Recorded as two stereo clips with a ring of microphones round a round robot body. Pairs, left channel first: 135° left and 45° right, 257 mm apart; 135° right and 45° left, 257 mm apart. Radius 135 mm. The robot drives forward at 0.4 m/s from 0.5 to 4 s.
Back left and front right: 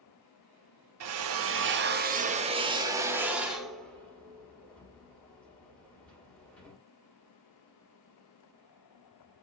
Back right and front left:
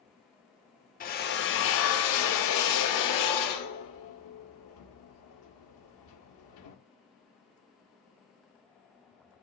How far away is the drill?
About 0.9 m.